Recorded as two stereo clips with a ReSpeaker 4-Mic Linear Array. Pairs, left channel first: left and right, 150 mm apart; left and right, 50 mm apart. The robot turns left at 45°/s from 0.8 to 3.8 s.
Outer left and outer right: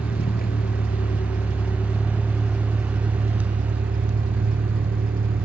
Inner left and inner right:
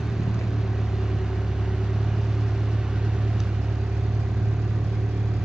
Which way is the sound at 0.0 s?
85° left.